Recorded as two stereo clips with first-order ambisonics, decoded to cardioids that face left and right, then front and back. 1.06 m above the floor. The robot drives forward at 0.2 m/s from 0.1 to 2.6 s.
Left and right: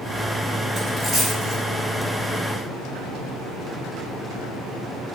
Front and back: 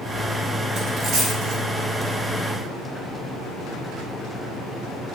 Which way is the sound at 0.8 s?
160° left.